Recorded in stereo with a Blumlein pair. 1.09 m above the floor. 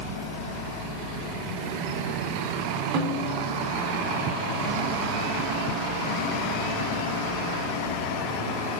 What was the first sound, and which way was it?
A snare drum, 45° right.